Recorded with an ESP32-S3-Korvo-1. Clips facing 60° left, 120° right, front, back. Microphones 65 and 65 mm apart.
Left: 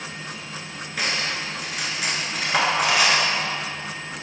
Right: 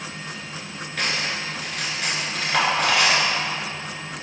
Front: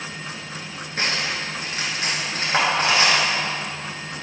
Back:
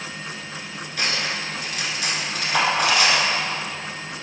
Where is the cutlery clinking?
15° right, 0.9 m.